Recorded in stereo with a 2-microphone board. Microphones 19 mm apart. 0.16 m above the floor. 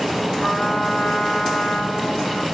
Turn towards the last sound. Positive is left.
turn(degrees=70)  # may be behind; listen again after turning